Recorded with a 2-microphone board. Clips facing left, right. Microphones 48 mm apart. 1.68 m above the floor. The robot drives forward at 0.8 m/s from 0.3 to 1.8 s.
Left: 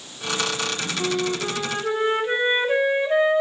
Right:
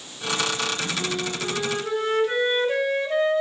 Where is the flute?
25° left (ahead or behind), 1.3 m; by 3.4 s 20° left (ahead or behind), 1.7 m.